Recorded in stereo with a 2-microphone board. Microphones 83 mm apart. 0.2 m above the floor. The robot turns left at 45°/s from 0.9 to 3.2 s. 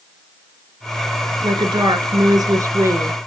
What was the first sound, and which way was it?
A woman speaking, 70° right.